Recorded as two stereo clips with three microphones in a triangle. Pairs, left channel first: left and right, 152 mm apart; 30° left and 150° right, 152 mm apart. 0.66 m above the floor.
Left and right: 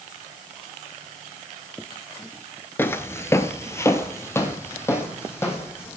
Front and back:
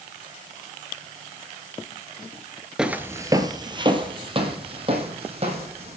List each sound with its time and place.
2.8 s footsteps: 135° left, 0.6 m; by 6.0 s 165° left, 2.5 m